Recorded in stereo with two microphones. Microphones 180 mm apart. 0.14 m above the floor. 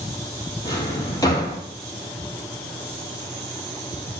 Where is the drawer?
20° left (ahead or behind), 1.5 m.